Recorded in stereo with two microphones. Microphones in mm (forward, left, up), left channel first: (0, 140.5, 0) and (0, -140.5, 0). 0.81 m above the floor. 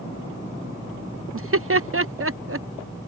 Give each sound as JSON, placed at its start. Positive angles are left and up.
{"t": 1.3, "sound": "laughter", "side_deg": -50}